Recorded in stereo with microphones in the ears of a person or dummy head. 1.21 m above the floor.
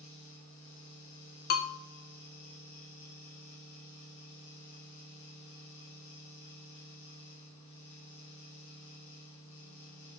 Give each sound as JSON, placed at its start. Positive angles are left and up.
{"t": 0.0, "sound": "a fan", "side_deg": 75, "distance_m": 2.5}
{"t": 1.5, "sound": "a bell", "side_deg": 55, "distance_m": 0.9}